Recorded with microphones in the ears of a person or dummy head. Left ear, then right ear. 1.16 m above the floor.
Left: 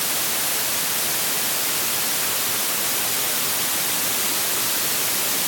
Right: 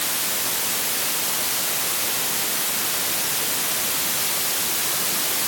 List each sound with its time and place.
Only background noise.